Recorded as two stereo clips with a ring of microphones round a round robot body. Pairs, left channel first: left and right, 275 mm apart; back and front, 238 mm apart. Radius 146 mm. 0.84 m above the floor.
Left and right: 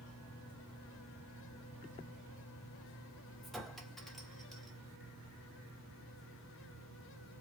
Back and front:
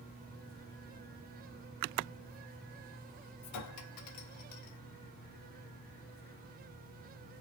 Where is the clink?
Straight behind, 1.1 m.